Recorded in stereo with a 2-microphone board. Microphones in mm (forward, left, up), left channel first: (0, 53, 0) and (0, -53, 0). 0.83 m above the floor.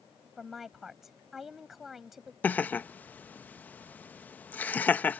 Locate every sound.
0.4 s a woman speaking: 5° right (ahead or behind)
2.4 s laughter: 15° left (ahead or behind)